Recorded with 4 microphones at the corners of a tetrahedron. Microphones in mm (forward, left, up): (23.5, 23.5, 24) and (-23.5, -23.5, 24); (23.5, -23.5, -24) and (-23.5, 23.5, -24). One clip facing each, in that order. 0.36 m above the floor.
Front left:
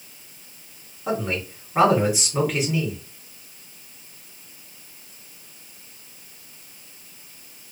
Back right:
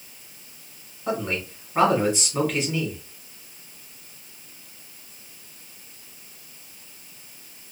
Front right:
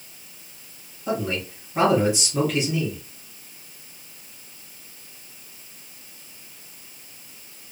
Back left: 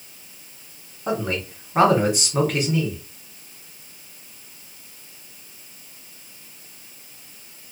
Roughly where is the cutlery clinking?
No cutlery clinking in this recording.